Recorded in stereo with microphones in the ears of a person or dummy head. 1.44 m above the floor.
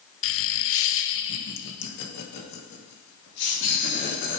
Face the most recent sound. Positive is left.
turn(degrees=60)  # may be behind; listen again after turning